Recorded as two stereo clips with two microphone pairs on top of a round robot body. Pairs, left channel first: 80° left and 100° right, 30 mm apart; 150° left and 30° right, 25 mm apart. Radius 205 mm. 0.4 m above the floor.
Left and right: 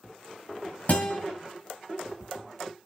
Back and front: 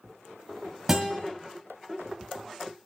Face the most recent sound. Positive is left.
turn(degrees=45)